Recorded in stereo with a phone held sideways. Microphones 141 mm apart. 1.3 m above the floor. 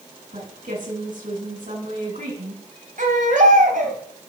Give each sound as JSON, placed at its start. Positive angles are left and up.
{"t": 0.3, "sound": "a woman speaking", "side_deg": -70, "distance_m": 10.0}
{"t": 3.0, "sound": "a baby crying", "side_deg": -70, "distance_m": 2.5}